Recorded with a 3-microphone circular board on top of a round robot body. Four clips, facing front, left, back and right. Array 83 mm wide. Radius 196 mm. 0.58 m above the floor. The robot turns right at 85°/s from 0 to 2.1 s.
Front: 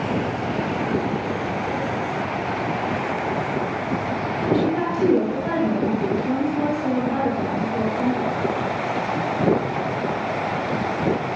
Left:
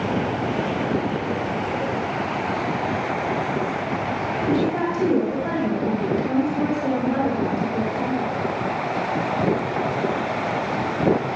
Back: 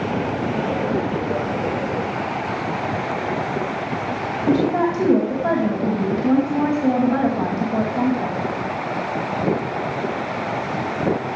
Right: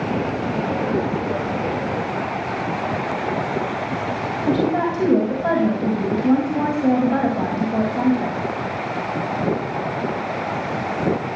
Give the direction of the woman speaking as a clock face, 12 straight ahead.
4 o'clock.